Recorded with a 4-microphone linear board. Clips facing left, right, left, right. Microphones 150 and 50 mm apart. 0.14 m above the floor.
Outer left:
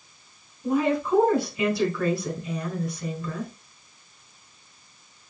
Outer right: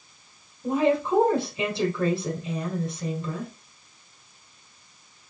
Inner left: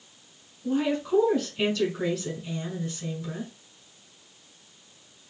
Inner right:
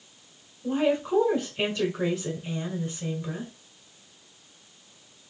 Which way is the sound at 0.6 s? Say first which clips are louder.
Outer right 1 dB, inner right 2 dB; 25° right (ahead or behind).